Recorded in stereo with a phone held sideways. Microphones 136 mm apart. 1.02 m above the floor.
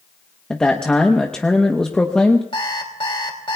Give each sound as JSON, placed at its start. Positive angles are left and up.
{"t": 0.5, "sound": "a man speaking", "side_deg": 5, "distance_m": 0.9}
{"t": 2.5, "sound": "an alarm clock", "side_deg": 40, "distance_m": 3.0}